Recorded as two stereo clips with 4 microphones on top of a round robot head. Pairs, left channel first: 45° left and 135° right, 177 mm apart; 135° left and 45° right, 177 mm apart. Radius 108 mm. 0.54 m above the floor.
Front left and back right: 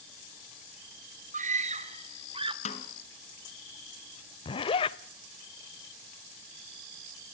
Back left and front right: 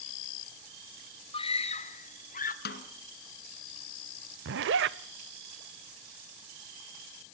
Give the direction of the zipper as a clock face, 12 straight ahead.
1 o'clock.